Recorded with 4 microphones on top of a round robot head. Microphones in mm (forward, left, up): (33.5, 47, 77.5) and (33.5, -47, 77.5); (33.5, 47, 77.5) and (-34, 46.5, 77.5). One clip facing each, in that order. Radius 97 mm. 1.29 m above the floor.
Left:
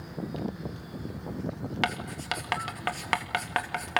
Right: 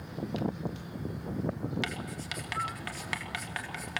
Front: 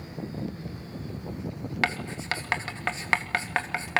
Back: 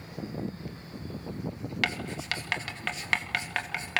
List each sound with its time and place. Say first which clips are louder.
1.8 s writing: left 6 dB, front 3 dB; 55° left, 2.5 m